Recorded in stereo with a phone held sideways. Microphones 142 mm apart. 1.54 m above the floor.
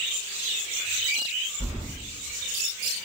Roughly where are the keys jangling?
Left.